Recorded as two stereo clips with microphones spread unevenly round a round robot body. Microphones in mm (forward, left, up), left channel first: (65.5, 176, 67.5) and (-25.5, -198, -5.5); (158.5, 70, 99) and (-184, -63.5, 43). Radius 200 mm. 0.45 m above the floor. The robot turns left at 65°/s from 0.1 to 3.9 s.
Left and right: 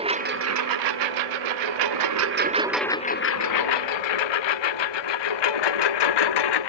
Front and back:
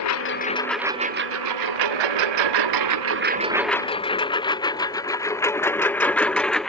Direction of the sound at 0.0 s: 30° right.